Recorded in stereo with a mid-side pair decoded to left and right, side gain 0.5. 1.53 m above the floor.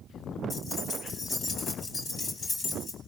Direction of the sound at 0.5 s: 45° left.